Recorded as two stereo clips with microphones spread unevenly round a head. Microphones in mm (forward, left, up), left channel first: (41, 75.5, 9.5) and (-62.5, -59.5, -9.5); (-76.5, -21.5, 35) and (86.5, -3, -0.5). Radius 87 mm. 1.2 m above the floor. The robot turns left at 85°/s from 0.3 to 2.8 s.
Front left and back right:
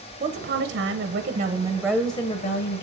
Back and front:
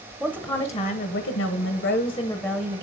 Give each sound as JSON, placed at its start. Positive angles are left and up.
{"t": 0.2, "sound": "a woman speaking", "azimuth_deg": -85, "distance_m": 0.9}